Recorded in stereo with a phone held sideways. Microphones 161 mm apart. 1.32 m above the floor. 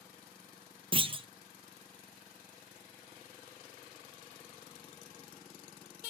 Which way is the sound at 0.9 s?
35° right (ahead or behind).